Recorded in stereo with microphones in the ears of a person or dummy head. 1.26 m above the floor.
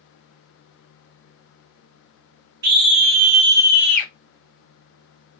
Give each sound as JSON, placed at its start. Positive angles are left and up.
{"t": 2.6, "sound": "a scream", "side_deg": -50, "distance_m": 1.2}